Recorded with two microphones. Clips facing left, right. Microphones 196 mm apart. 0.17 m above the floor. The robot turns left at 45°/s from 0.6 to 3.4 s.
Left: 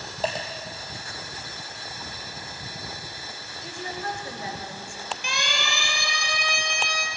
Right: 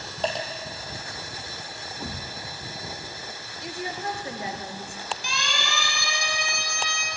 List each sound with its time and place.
0.2 s a dropped coin: 5° left (ahead or behind), 3 m
2.0 s a thud: 45° right (ahead or behind), 0.7 m; by 2.4 s 40° right (ahead or behind), 0.7 m
3.6 s a woman speaking: 20° right (ahead or behind), 3.5 m
5.2 s a siren: 65° left (ahead or behind), 5.5 m; by 7.1 s 70° left (ahead or behind), 6.5 m